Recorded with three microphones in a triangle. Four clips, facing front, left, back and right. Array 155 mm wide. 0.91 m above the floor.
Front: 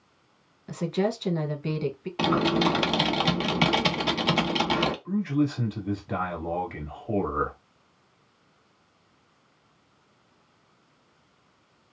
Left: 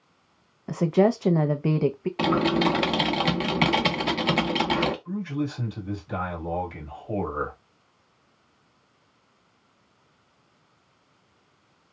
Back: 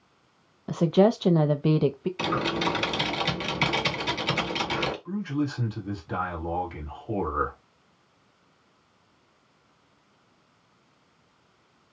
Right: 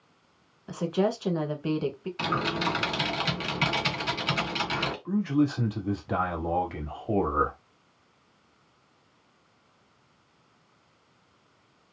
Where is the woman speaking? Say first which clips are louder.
Left 6 dB, back 7 dB; 135° left, 0.5 m.